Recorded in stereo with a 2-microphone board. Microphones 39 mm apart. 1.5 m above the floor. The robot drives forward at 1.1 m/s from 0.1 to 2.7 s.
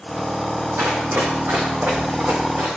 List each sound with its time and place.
0.8 s running footsteps: 70° right (ahead or behind), 4.5 m; by 2.8 s 65° right (ahead or behind), 5.5 m